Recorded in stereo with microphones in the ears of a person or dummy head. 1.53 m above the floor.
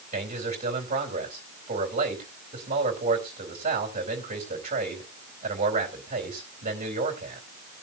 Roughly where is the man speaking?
Right.